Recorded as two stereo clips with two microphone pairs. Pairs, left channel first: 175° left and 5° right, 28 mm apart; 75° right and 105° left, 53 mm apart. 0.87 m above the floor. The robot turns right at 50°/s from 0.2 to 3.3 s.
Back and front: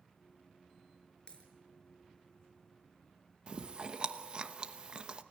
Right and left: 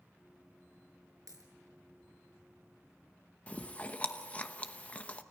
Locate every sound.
1.3 s a dropped coin: 115° left, 5 m; by 1.5 s 125° left, 5 m
3.5 s chewing: 25° right, 0.9 m